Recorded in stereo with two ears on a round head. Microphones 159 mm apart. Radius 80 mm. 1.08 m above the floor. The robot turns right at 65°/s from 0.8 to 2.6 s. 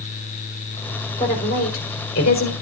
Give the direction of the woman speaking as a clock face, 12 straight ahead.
11 o'clock.